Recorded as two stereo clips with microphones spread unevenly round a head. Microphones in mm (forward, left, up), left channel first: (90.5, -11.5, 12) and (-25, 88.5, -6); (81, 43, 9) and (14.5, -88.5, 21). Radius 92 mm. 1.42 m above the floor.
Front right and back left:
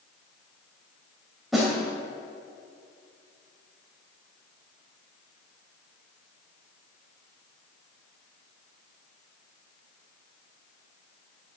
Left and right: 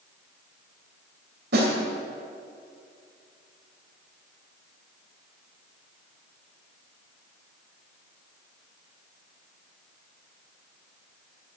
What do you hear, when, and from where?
1.5 s a snare drum: 130° right, 2.5 m